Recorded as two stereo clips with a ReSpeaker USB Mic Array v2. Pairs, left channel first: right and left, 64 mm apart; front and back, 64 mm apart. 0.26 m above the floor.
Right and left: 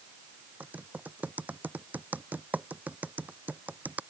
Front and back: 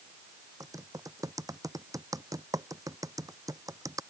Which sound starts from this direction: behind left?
Typing on a keyboard, at 0.6 s.